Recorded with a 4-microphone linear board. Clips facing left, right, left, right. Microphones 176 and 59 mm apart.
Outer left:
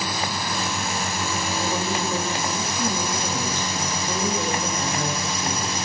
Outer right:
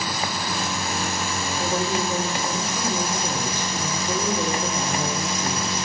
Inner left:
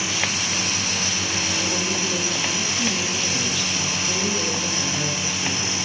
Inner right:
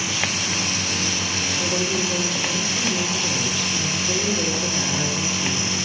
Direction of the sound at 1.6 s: 15° right (ahead or behind).